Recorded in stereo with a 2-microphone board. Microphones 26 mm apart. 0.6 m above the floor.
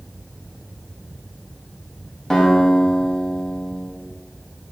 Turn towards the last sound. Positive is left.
turn(degrees=20)  # may be behind; listen again after turning